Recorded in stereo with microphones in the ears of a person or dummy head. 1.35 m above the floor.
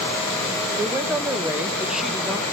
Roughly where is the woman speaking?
Centre.